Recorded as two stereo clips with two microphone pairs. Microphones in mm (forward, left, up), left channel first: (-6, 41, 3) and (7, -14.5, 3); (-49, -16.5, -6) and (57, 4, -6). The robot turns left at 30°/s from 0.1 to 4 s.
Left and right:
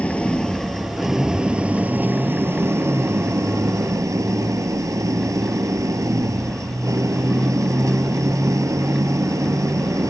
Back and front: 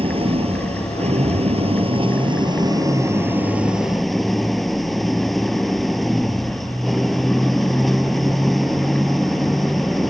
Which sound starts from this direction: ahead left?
An engine running, at 0.0 s.